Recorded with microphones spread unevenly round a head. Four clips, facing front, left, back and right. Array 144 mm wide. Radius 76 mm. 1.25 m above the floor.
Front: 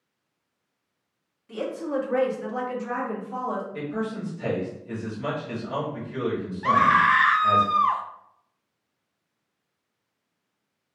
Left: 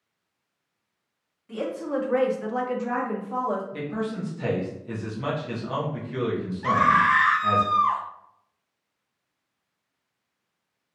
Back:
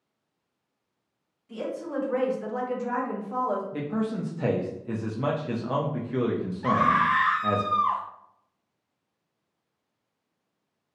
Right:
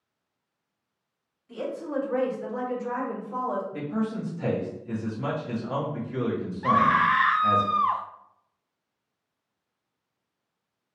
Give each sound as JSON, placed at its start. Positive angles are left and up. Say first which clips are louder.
{"t": 1.5, "sound": "a woman speaking", "louder": "left 3 dB, front 3 dB", "azimuth_deg": 50, "distance_m": 1.4}
{"t": 3.7, "sound": "a man speaking", "louder": "right 1 dB, back 1 dB", "azimuth_deg": 180, "distance_m": 0.8}
{"t": 6.6, "sound": "a scream", "louder": "left 1 dB, front 3 dB", "azimuth_deg": -25, "distance_m": 0.6}